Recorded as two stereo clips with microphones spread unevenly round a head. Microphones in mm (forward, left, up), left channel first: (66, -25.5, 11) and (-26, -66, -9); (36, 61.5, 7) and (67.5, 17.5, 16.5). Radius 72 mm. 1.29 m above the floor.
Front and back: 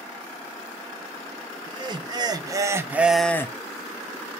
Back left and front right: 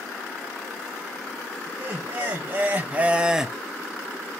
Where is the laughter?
120° right, 1.3 m; by 3.6 s 50° left, 0.5 m.